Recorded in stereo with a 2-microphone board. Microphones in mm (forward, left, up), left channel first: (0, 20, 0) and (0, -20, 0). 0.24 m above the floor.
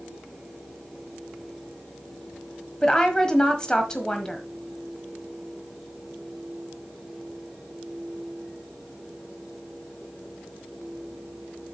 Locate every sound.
2.8 s a woman speaking: 20° left (ahead or behind), 1.4 m